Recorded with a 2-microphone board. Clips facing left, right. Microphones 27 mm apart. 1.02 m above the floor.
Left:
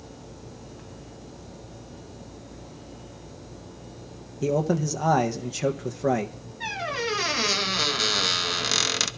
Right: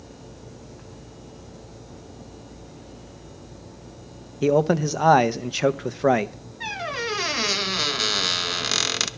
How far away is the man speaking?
About 0.6 m.